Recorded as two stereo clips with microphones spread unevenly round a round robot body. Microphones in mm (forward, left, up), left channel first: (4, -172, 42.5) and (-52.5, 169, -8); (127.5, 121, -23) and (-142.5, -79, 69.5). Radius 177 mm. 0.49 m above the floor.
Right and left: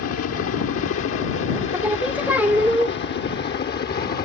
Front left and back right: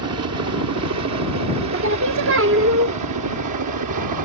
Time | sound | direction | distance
0.0 | a helicopter | 105° right | ?
1.7 | singing | 170° left | ?